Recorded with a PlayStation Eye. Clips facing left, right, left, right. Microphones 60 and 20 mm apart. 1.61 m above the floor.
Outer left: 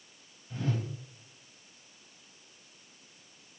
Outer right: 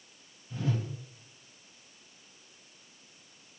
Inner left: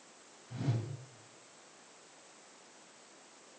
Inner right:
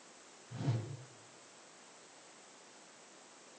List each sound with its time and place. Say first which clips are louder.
0.5 s a whoosh: outer right 1 dB, inner left 2 dB; 40° left (ahead or behind), 2.5 m